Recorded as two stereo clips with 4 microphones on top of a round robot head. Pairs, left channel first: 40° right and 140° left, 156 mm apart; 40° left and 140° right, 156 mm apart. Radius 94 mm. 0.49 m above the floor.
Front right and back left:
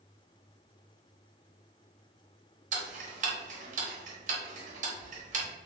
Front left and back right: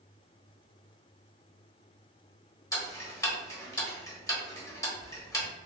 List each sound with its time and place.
2.7 s ticking: 105° left, 0.8 m